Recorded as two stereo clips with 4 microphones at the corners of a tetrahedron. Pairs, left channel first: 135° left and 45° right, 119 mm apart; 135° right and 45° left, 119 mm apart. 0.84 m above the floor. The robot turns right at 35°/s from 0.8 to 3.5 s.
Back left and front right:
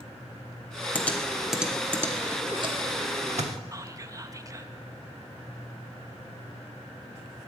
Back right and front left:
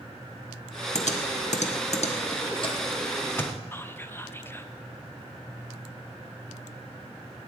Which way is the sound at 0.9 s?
150° right.